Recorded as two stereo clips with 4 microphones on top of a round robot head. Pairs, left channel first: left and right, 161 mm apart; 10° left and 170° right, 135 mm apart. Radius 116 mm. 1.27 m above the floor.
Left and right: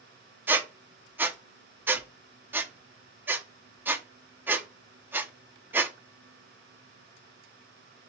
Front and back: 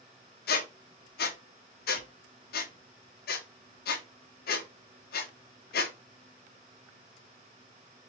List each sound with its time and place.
0.5 s a squeak: 10° right, 0.5 m